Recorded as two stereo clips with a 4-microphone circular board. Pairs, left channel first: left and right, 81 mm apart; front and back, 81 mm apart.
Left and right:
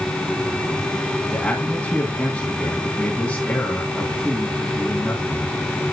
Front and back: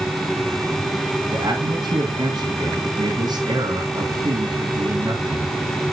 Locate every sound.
1.3 s a man speaking: 165° left, 2.5 m